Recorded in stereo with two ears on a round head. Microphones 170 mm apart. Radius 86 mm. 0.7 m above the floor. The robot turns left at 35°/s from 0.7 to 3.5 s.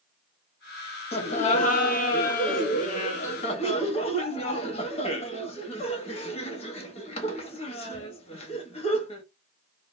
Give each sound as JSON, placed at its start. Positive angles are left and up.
{"t": 1.1, "sound": "laughter", "azimuth_deg": 130, "distance_m": 0.9}